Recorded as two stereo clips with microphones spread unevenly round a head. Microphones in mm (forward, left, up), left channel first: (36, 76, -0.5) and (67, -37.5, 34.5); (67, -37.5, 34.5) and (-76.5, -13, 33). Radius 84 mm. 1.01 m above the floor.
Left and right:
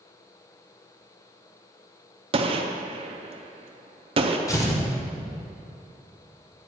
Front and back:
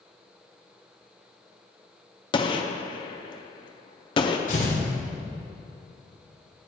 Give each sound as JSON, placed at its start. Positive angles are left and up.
{"t": 2.3, "sound": "a gunshot", "azimuth_deg": -65, "distance_m": 0.5}
{"t": 4.5, "sound": "tearing paper", "azimuth_deg": 35, "distance_m": 1.4}